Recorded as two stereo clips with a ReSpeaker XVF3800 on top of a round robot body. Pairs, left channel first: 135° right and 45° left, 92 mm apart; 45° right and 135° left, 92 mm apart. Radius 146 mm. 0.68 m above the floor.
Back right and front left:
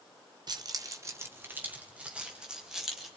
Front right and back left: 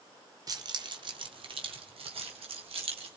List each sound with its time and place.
0.5 s keys jangling: 85° left, 1.9 m; by 3.1 s 130° left, 4 m